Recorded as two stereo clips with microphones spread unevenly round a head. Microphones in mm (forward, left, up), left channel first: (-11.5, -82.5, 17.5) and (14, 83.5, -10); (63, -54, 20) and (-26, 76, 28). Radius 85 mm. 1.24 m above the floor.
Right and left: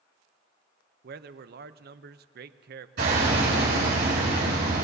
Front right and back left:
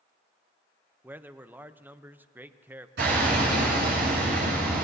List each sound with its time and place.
1.0 s a man speaking: 45° left, 0.6 m
3.0 s hammering: 115° left, 7 m